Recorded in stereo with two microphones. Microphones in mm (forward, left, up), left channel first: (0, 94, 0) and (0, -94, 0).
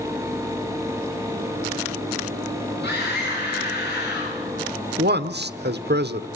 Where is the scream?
80° left, 6.5 m; by 4.4 s 75° left (ahead or behind), 5 m.